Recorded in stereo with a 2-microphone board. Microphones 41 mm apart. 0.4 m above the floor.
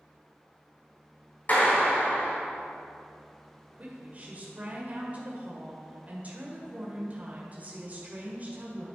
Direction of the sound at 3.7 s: 40° right (ahead or behind).